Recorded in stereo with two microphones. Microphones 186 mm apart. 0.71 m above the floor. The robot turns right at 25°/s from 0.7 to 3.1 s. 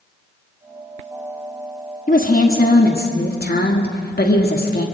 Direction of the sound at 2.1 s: 45° left (ahead or behind).